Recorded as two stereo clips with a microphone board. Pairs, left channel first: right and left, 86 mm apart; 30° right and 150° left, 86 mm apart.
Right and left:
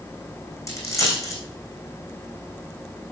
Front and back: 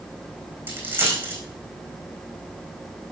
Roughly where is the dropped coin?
Behind right.